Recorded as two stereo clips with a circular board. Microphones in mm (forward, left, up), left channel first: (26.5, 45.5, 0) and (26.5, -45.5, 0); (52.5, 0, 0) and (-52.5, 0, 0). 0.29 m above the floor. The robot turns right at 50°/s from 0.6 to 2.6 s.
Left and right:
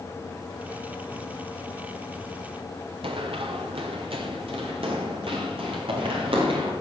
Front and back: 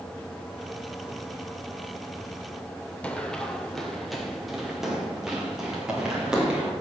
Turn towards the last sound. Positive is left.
turn(degrees=-100)